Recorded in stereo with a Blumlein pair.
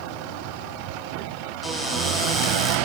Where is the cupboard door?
10° left, 5 m.